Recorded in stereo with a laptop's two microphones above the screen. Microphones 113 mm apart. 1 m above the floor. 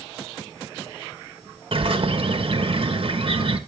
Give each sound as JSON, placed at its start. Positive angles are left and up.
{"t": 1.7, "sound": "a bird", "side_deg": -55, "distance_m": 1.2}